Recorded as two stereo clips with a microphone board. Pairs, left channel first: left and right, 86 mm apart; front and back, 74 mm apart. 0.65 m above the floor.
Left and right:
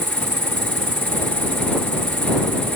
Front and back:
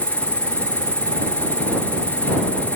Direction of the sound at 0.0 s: 75° right.